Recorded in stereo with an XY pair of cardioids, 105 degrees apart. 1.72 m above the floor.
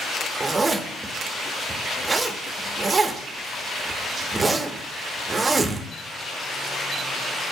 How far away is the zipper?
About 0.5 m.